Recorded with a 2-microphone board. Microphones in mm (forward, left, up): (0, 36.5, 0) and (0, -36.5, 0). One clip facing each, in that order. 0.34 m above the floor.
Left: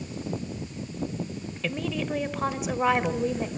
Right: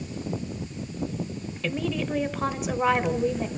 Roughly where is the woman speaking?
Centre.